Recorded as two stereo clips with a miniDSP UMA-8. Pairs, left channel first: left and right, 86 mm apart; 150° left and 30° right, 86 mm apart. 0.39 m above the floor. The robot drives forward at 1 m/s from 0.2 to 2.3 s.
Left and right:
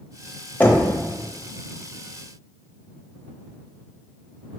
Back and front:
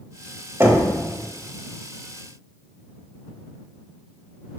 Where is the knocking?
20° left, 1.1 m; by 0.9 s 35° left, 0.9 m.